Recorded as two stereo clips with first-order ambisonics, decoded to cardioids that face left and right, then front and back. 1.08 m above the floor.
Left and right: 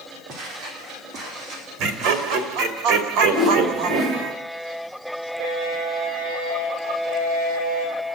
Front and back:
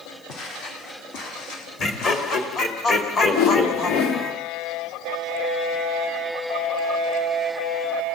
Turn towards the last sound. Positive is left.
turn(degrees=5)